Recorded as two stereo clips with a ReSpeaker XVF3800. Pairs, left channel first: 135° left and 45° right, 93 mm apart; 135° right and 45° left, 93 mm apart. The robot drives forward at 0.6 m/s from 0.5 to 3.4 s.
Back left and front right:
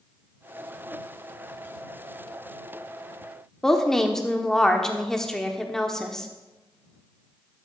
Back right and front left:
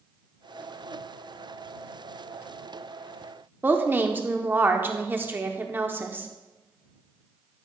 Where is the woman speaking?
60° left, 0.8 m.